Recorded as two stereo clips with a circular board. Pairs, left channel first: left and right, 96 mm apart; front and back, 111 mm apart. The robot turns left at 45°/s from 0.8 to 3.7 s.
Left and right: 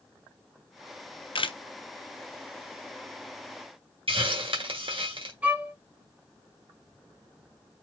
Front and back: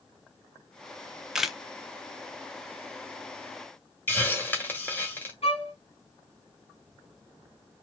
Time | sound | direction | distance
1.4 | a camera shutter | 95° left | 0.5 m
4.1 | a hiss | 70° right | 1.6 m
5.4 | a violin | 20° right | 1.8 m